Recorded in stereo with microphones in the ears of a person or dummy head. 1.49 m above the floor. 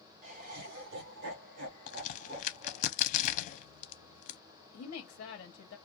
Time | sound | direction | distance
0.2 | laughter | 45° right (ahead or behind) | 0.8 m
1.9 | a crack | 45° left (ahead or behind) | 0.6 m
4.7 | a woman speaking | 55° left (ahead or behind) | 0.8 m